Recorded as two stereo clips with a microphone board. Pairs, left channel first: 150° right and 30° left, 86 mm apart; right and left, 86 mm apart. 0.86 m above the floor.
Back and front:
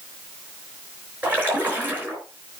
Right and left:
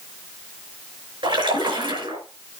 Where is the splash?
100° left, 4.5 m.